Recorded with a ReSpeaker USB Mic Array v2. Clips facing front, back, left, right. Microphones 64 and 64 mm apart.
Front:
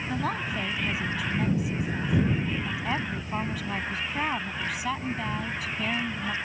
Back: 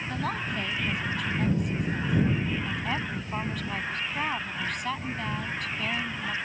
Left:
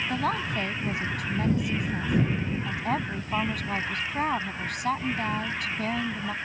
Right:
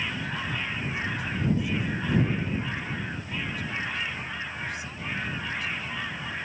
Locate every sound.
0.1 s a woman speaking: 85° left